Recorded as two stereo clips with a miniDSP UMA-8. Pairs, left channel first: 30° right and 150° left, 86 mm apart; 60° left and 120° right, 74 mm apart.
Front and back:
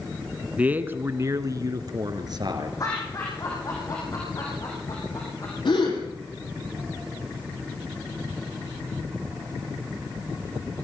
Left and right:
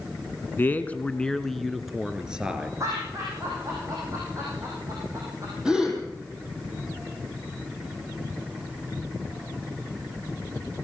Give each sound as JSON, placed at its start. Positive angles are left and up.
{"t": 0.6, "sound": "a man speaking", "azimuth_deg": 90, "distance_m": 1.5}
{"t": 2.8, "sound": "laughter", "azimuth_deg": -75, "distance_m": 6.5}
{"t": 5.7, "sound": "a gasp", "azimuth_deg": -40, "distance_m": 6.5}